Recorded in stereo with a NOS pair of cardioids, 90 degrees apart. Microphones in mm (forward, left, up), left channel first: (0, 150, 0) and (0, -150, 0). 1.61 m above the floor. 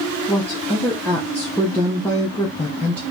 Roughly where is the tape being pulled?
No tape being pulled in this recording.